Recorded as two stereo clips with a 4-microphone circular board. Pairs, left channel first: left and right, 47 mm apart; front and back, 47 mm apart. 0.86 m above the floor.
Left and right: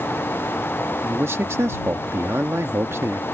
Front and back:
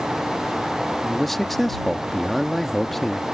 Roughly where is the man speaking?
Right.